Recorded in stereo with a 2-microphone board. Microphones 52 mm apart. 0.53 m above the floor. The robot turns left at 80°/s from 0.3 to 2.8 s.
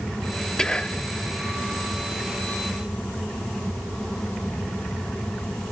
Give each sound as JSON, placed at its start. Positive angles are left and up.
{"t": 0.6, "sound": "whispering", "side_deg": 15}